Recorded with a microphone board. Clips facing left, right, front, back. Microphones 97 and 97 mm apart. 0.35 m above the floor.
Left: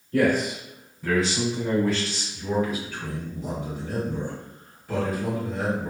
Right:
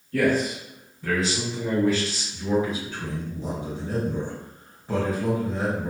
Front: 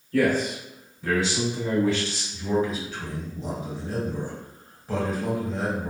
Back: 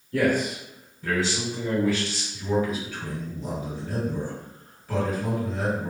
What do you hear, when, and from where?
0.1 s a man speaking: 140° left, 0.9 m; by 2.2 s 20° right, 1.1 m
2.3 s a man speaking: 40° right, 1.7 m